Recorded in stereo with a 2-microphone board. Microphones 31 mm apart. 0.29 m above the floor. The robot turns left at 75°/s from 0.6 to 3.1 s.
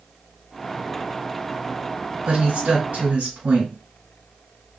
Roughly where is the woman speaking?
Ahead right.